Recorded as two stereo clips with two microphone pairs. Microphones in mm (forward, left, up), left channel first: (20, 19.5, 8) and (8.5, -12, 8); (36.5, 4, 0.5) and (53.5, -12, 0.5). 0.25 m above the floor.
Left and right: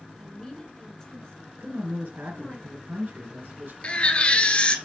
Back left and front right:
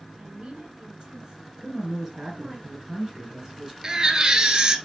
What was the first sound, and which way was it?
A woman speaking, 10° right.